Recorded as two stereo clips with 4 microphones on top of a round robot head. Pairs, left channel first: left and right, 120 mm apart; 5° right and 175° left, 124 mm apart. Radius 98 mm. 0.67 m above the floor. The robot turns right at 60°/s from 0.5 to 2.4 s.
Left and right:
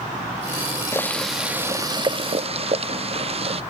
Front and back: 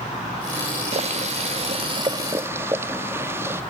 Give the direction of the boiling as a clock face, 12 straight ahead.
7 o'clock.